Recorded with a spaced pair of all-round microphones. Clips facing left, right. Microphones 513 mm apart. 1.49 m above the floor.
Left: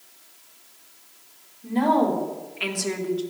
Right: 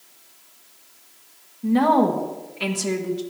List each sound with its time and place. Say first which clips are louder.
1.6 s a woman speaking: right 3 dB; 85° right, 2.0 m; by 3.2 s 45° right (ahead or behind), 1.9 m